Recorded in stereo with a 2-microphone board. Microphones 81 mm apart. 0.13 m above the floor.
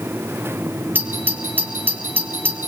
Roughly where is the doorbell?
Right.